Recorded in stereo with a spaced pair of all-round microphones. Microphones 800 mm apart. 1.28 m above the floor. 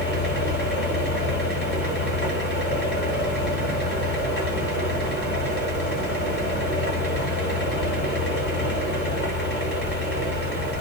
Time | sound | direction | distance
0.0 | a fan | 15° left (ahead or behind) | 1.2 m